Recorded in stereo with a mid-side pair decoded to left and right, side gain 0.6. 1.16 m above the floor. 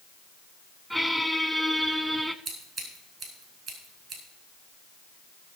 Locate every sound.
0.9 s a squeak: 10° right, 0.9 m
2.5 s scissors: 45° right, 5 m